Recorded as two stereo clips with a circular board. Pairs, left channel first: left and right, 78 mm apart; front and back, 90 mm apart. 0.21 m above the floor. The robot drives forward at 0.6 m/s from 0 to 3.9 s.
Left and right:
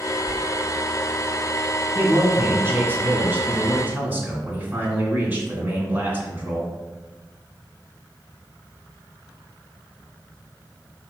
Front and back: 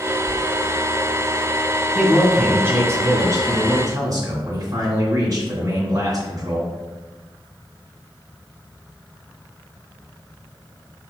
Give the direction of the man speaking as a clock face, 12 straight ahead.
4 o'clock.